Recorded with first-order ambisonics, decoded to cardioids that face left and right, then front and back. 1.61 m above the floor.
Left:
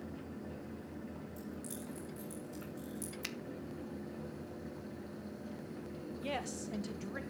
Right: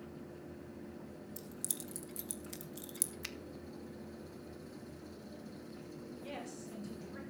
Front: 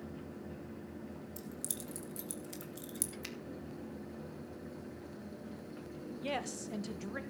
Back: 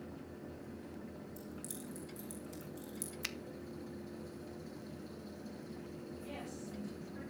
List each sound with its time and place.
1.4 s keys jangling: 55° right, 1.4 m
3.2 s a finger snap: 165° left, 0.5 m
6.2 s a woman speaking: 35° left, 1.7 m